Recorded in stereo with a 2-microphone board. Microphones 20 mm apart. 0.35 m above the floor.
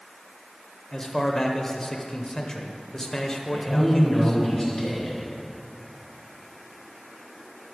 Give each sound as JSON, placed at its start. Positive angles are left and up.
{"t": 0.9, "sound": "a man speaking", "side_deg": 20, "distance_m": 0.9}
{"t": 3.5, "sound": "a man speaking", "side_deg": 15, "distance_m": 4.0}